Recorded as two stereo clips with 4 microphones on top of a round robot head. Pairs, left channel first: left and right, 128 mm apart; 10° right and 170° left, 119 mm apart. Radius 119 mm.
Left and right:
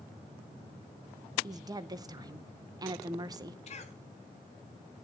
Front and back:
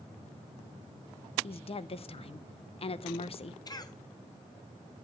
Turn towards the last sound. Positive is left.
turn(degrees=45)